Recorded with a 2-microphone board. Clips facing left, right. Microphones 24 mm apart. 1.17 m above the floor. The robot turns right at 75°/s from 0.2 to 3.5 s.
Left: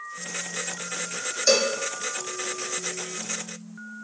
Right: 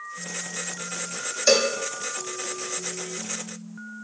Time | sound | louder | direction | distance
1.5 | a cowbell | right 1 dB | 15° right (ahead or behind) | 1.0 m